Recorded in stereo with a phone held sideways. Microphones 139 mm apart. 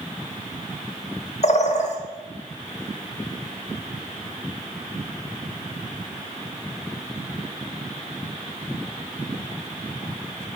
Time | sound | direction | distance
1.4 | a bird | 55° left (ahead or behind) | 1.4 m